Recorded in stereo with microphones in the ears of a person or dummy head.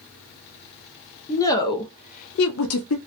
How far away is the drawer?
No drawer in this recording.